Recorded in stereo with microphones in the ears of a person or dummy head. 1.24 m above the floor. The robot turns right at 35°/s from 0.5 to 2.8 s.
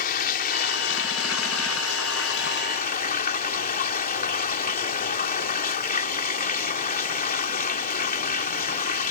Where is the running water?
50° left; by 9.1 s 130° left.